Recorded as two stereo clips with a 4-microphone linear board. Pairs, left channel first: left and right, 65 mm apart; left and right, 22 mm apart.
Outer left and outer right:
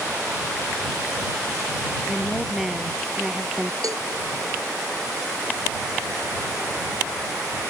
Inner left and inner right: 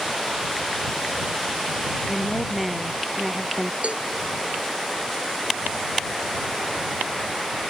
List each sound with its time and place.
2.1 s a woman speaking: 5° right (ahead or behind)
3.8 s a cowbell: 65° right (ahead or behind)